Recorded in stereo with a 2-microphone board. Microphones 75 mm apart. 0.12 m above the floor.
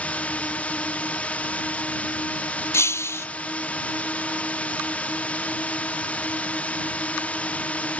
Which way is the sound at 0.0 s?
20° left (ahead or behind).